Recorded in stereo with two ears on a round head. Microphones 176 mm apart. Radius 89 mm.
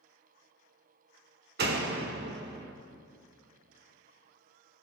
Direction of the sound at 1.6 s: 50° right (ahead or behind).